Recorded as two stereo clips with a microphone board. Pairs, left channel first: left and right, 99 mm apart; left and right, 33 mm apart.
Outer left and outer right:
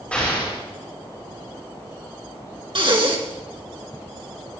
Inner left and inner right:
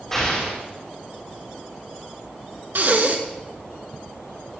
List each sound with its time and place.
0.1 s an explosion: 15° left (ahead or behind), 9.5 m
2.8 s breathing: 60° right (ahead or behind), 2.5 m